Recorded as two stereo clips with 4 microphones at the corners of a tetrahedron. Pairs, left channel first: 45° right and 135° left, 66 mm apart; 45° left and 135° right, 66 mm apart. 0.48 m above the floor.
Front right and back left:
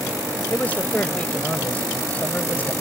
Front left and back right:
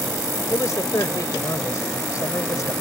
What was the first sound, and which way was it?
A man speaking, 20° left.